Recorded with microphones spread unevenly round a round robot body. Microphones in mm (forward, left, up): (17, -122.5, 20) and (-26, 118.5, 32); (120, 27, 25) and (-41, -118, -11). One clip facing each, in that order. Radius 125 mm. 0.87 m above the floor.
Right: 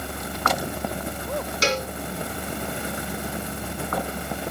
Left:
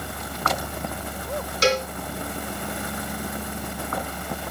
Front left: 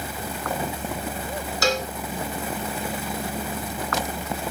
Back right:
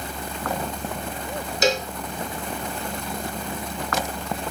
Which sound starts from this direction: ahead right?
A cowbell, at 1.6 s.